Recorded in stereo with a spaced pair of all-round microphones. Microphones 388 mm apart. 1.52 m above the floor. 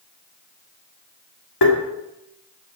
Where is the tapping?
75° left (ahead or behind), 2.5 m.